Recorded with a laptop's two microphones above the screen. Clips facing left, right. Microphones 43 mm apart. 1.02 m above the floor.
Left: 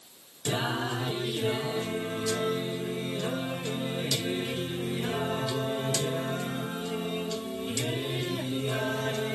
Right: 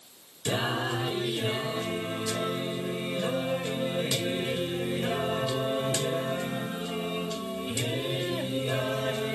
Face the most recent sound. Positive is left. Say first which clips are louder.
# right 1 dB
turn(degrees=-15)  # may be behind; listen again after turning